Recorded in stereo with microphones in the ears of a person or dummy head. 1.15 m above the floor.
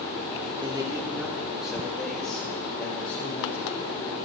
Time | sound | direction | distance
0.6 | a man speaking | 20° right (ahead or behind) | 2 m